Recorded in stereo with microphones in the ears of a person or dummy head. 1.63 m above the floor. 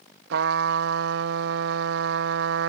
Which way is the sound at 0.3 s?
70° right (ahead or behind).